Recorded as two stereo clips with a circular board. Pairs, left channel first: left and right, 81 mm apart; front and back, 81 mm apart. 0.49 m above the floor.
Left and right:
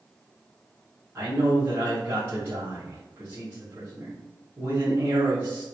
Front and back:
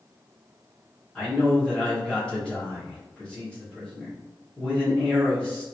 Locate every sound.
1.1 s a man speaking: 70° right, 1.4 m